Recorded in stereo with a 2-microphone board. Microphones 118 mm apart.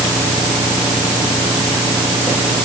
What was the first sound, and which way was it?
Only background noise.